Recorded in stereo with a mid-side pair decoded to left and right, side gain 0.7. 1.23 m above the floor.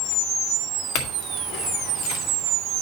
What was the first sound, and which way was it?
A clink, 65° left.